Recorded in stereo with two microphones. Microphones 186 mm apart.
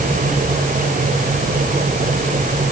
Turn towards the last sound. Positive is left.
No sound to turn to.